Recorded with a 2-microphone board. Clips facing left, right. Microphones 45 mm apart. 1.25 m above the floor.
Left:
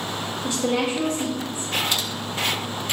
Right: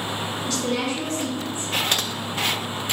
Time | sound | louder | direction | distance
0.4 | a woman speaking | left 3 dB | 20° left (ahead or behind) | 2 m
1.9 | typing on a keyboard | right 1 dB | 50° right (ahead or behind) | 0.6 m